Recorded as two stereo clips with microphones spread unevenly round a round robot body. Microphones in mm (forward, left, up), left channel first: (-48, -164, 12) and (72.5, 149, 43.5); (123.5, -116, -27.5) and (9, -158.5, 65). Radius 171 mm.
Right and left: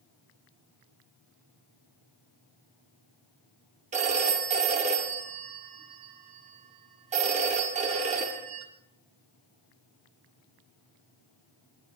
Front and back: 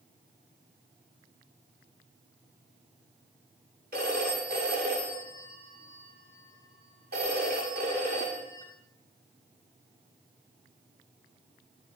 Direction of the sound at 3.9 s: 140° left.